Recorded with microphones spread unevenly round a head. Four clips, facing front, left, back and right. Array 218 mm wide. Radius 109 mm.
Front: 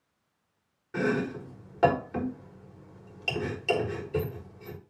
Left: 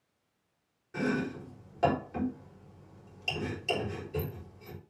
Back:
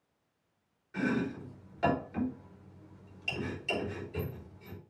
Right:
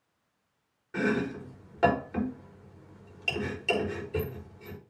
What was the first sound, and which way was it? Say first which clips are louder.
Chopping: right 3 dB, front 4 dB; 20° right.